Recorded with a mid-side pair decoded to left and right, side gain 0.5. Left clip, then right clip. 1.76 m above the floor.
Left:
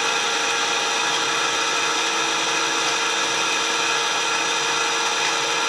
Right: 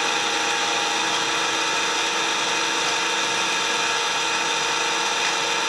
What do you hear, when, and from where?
0.0 s an engine running: straight ahead, 1.4 m